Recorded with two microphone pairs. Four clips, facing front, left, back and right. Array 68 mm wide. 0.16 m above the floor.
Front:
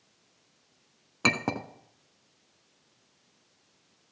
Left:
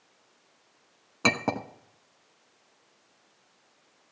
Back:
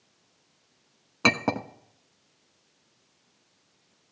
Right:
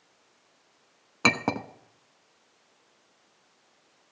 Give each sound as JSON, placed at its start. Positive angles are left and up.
{"t": 1.2, "sound": "a clink", "azimuth_deg": -125, "distance_m": 0.9}